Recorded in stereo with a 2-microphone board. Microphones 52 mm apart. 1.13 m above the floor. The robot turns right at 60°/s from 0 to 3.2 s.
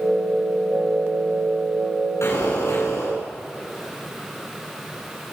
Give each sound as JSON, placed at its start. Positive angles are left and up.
{"t": 2.2, "sound": "an explosion", "azimuth_deg": 70, "distance_m": 9.5}